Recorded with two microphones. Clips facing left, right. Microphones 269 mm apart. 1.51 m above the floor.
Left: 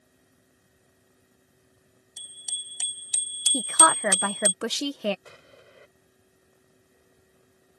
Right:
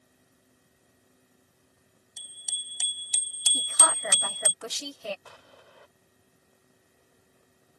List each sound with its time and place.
2.2 s a bicycle bell: centre (ahead or behind); by 4.5 s 20° left (ahead or behind)
3.5 s a woman speaking: 75° left (ahead or behind)
5.2 s an explosion: 25° left (ahead or behind)